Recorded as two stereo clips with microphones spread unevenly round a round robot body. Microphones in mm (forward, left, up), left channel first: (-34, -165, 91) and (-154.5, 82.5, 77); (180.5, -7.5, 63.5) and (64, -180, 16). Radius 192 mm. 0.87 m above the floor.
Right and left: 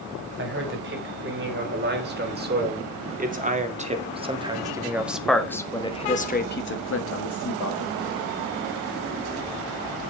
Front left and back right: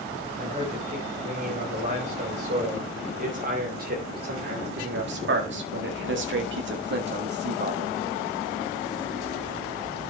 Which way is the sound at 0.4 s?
160° left.